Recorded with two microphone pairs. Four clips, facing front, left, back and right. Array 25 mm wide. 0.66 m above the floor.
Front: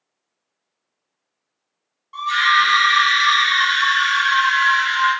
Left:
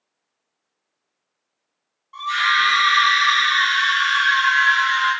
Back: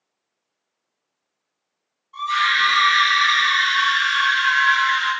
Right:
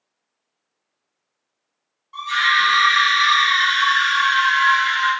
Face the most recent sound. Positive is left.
turn(degrees=-30)